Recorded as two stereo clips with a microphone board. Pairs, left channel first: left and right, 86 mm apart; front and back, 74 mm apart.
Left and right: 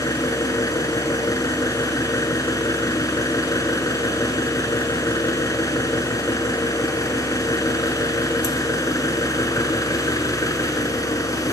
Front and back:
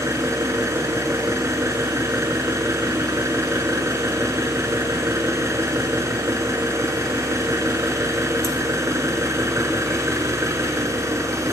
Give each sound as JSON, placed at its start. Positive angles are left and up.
{"t": 0.0, "sound": "an engine running", "azimuth_deg": 135, "distance_m": 1.1}